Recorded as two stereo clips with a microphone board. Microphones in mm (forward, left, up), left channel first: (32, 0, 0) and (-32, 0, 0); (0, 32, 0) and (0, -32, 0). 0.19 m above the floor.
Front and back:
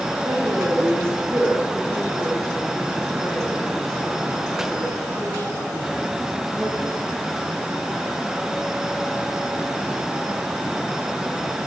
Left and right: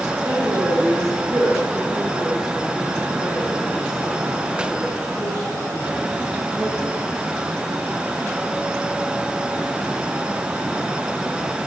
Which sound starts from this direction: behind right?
A woman speaking, at 0.2 s.